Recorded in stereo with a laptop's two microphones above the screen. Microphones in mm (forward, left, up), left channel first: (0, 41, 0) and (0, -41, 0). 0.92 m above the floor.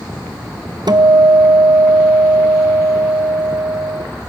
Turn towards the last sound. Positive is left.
turn(degrees=-60)  # may be behind; listen again after turning